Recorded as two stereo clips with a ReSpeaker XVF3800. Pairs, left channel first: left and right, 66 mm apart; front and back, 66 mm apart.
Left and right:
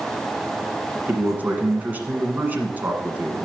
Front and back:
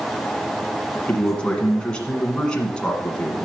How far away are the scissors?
I don't hear scissors.